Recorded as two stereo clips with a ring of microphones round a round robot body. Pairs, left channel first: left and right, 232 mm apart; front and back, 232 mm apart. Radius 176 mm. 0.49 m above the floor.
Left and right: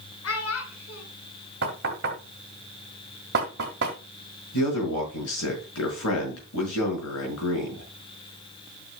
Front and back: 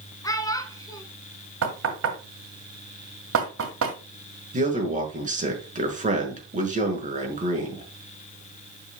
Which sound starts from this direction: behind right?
Knocking, at 1.6 s.